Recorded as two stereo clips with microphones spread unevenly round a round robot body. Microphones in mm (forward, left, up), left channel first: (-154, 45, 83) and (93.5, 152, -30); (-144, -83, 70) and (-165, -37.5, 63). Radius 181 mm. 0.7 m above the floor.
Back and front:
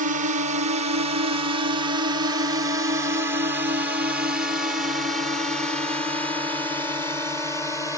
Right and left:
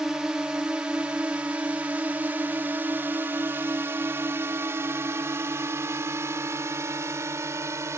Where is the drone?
45° left; by 8.0 s 115° left.